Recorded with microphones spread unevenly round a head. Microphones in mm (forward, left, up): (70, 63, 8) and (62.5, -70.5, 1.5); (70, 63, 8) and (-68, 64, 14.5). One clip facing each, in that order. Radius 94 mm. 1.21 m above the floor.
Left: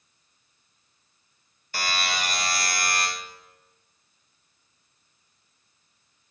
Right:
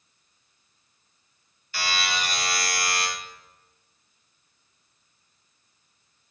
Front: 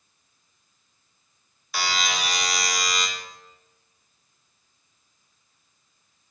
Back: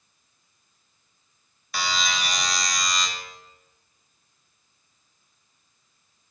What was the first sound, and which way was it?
A buzzer, 90° left.